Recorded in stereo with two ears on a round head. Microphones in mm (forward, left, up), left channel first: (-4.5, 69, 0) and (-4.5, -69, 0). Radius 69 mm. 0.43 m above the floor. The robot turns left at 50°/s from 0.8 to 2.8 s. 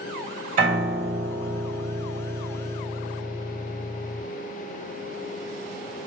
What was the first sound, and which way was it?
A piano, 55° right.